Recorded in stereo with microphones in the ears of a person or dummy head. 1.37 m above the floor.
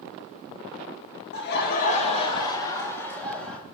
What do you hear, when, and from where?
1.3 s laughter: 65° left (ahead or behind), 1.8 m; by 3.6 s 10° left (ahead or behind), 3.5 m